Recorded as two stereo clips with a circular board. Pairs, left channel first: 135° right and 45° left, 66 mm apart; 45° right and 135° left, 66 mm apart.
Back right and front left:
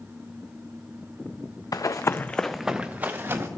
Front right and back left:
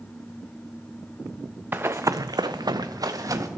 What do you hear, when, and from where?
1.7 s running footsteps: 165° right, 0.7 m; by 3.5 s 95° left, 1.2 m